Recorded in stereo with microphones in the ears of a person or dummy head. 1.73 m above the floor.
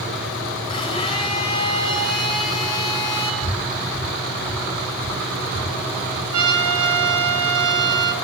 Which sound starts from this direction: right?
A trumpet, at 6.3 s.